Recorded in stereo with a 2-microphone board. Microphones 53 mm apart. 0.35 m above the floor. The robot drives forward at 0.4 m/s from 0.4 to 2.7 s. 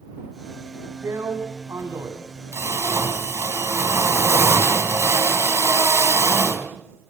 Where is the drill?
65° right (ahead or behind), 3 m.